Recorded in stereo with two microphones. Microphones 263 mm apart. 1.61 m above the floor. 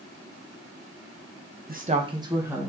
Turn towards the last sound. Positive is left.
turn(degrees=-5)  # may be behind; listen again after turning